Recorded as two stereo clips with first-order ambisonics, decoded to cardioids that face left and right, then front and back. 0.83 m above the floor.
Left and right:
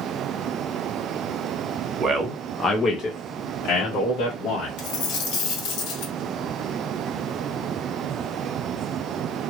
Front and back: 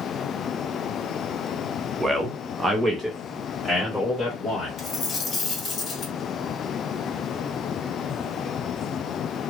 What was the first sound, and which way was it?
A man speaking, 110° right.